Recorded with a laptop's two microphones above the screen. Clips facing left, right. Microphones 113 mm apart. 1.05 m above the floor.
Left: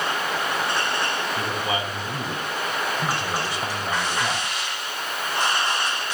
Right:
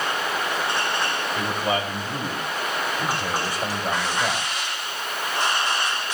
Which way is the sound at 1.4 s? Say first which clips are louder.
Right 2 dB; 45° right (ahead or behind).